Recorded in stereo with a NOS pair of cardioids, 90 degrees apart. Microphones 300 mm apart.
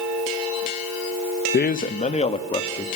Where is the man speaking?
35° left, 1.0 m; by 2.9 s 15° left, 2.5 m.